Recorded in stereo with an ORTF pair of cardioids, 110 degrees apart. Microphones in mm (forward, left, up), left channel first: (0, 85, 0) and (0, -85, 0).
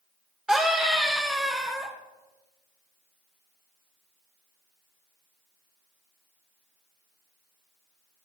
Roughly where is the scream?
Ahead.